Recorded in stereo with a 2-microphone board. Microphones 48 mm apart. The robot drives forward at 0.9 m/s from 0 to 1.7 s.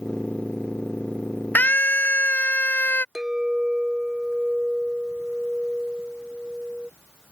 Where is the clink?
10° right (ahead or behind).